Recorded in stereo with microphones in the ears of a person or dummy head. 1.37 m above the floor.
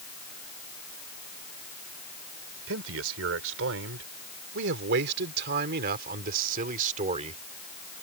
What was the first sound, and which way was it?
A man speaking, 85° right.